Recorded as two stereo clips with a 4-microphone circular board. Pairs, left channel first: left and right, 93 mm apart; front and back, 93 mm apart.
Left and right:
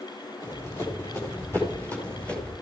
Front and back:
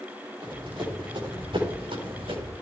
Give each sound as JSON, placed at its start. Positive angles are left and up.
{"t": 0.4, "sound": "running footsteps", "azimuth_deg": 150, "distance_m": 5.0}